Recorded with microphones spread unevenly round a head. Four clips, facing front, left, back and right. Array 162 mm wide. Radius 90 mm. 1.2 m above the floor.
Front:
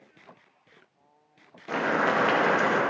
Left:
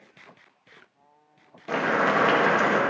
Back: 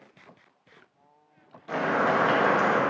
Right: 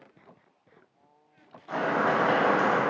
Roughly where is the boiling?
Left.